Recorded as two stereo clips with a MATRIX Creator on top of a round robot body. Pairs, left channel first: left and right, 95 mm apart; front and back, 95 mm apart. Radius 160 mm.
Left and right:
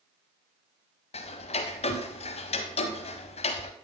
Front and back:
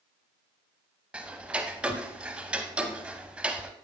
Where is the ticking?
105° left, 0.6 m.